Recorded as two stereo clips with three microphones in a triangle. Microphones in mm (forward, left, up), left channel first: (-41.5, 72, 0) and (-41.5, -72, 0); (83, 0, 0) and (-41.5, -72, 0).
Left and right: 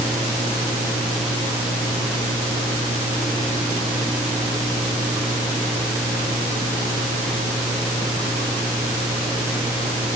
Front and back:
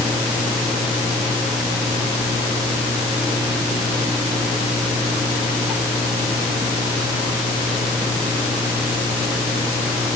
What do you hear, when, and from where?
Only background noise.